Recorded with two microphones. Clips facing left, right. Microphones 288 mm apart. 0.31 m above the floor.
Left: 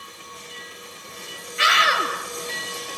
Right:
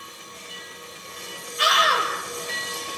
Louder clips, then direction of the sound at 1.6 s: Right 1 dB; 75° left (ahead or behind).